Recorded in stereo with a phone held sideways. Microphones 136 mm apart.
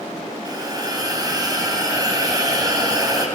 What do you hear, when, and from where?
0.5 s a hiss: 30° right (ahead or behind), 3 m